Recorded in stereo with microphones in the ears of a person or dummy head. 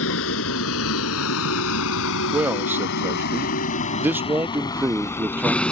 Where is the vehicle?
75° left (ahead or behind); by 5.7 s 5° left (ahead or behind).